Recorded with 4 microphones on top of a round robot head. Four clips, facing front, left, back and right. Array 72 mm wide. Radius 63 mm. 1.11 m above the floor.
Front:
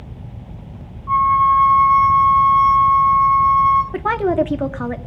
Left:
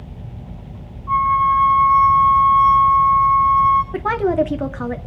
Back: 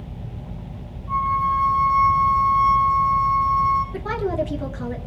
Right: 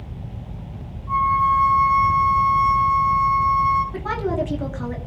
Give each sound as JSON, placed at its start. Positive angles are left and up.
{"t": 1.1, "sound": "a flute", "azimuth_deg": 30, "distance_m": 6.5}
{"t": 3.9, "sound": "a woman speaking", "azimuth_deg": 35, "distance_m": 2.5}